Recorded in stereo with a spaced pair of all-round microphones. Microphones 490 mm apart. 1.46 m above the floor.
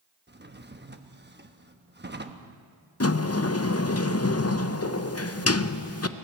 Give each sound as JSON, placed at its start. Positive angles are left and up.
{"t": 0.3, "sound": "a drawer", "side_deg": -20, "distance_m": 1.0}
{"t": 3.0, "sound": "a sliding door", "side_deg": 30, "distance_m": 0.7}